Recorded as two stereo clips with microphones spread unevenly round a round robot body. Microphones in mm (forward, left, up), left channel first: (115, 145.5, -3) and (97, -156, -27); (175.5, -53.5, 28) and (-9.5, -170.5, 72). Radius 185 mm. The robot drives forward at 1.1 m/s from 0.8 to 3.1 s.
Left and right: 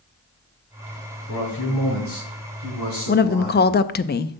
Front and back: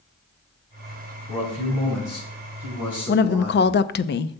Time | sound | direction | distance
1.3 | a man speaking | 55° left | 6.5 m
3.1 | a woman speaking | 25° left | 0.6 m